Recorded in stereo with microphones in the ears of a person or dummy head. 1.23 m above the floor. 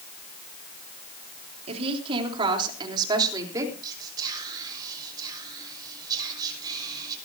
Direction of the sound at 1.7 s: 40° right (ahead or behind).